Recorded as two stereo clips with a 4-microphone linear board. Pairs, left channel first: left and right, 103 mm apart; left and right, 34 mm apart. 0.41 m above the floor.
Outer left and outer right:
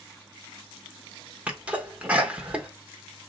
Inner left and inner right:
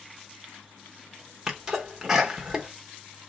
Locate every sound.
1.5 s a sneeze: 15° right (ahead or behind), 0.7 m